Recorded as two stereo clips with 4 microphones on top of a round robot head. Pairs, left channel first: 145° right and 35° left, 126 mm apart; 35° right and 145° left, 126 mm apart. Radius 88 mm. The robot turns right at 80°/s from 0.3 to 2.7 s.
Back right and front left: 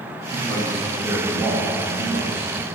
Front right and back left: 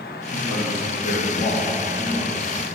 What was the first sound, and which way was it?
A man speaking, 90° right.